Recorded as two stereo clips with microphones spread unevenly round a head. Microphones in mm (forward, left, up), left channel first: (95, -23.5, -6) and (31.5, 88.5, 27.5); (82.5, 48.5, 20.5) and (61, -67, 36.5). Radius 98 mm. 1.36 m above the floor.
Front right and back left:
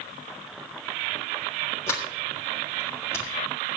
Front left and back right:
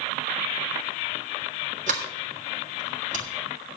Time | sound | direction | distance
1.9 | a sliding door | 145° right | 1.5 m